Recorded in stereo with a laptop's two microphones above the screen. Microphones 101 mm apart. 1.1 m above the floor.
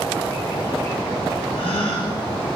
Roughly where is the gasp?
Left.